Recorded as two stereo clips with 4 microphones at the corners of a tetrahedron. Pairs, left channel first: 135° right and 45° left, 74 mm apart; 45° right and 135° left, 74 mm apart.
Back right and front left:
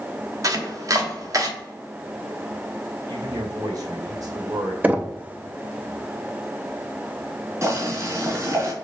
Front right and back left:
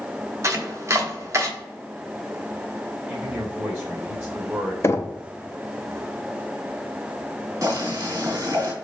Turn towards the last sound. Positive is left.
turn(degrees=95)